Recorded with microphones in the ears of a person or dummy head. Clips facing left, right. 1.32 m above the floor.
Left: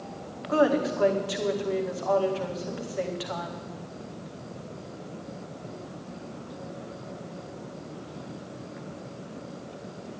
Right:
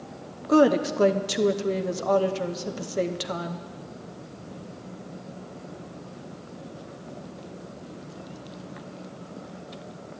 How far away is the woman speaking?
About 0.9 m.